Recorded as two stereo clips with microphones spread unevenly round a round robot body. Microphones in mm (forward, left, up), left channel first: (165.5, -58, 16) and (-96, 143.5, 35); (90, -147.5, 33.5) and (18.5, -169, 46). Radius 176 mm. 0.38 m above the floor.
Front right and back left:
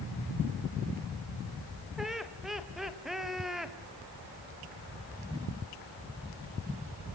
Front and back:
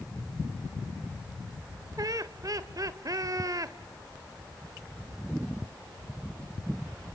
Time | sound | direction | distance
2.0 | laughter | 125° right | 1.3 m